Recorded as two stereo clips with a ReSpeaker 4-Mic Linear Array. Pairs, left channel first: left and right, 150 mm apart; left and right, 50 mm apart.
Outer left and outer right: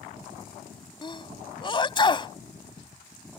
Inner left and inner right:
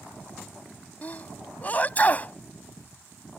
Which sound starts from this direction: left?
A sneeze, at 1.0 s.